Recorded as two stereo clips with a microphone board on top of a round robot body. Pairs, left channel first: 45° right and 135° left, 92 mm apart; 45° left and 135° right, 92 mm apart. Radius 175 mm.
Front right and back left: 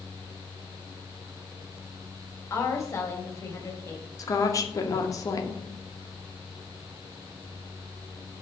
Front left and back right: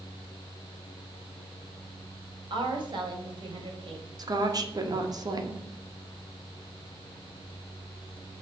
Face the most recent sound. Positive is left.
turn(degrees=-95)